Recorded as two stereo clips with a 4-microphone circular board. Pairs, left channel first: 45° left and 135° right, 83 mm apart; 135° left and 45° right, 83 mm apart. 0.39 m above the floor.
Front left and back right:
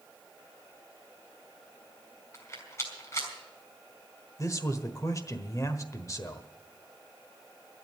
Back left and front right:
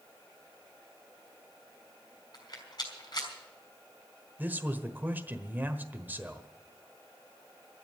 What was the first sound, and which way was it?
A rattle, 95° left.